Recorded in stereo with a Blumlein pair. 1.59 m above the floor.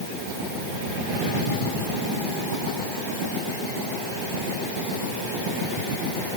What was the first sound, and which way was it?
Only background noise.